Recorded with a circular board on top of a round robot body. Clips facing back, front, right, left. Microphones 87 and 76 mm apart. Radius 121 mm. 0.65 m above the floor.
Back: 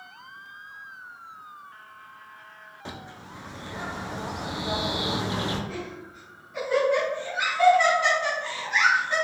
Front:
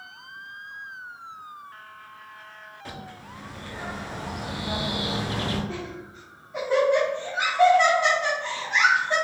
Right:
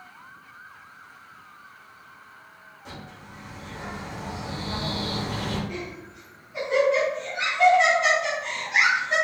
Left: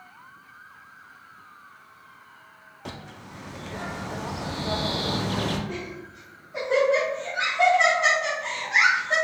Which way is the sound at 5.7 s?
55° left.